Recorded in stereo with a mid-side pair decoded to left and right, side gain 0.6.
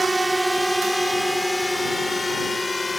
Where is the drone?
15° right; by 3.0 s 15° left.